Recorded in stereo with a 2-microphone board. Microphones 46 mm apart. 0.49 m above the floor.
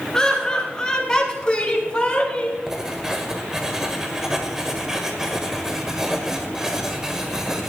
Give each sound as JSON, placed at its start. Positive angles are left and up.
{"t": 0.1, "sound": "laughter", "side_deg": 5, "distance_m": 6.0}
{"t": 2.7, "sound": "writing", "side_deg": -10, "distance_m": 1.9}